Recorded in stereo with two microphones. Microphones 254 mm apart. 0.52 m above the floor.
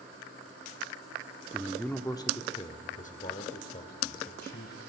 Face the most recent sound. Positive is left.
turn(degrees=40)  # may be behind; listen again after turning